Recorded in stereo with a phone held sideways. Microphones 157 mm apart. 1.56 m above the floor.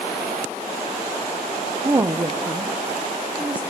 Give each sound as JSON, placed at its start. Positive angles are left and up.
{"t": 1.8, "sound": "a woman speaking", "side_deg": -30, "distance_m": 0.6}